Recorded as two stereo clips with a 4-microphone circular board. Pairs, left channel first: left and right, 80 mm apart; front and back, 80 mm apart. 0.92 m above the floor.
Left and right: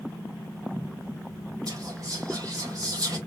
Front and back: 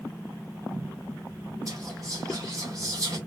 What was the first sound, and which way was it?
Whispering, 130° right.